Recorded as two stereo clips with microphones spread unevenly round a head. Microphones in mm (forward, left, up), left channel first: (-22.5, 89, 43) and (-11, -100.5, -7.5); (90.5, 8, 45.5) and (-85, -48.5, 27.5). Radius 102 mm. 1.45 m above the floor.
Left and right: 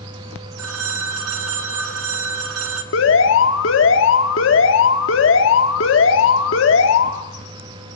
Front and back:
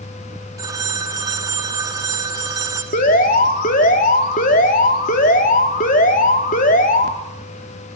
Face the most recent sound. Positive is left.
turn(degrees=70)